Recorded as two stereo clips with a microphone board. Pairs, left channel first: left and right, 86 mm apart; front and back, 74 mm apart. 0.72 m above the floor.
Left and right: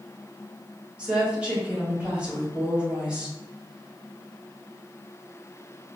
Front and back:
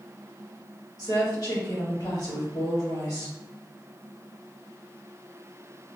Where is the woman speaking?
15° right, 2 m.